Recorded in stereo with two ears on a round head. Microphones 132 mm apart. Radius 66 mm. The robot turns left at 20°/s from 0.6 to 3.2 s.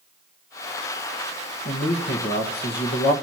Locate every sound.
1.6 s a man speaking: 75° left (ahead or behind), 1.5 m; by 3.1 s 65° left (ahead or behind), 1.5 m